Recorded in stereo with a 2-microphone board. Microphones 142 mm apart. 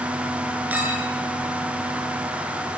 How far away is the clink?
About 7 m.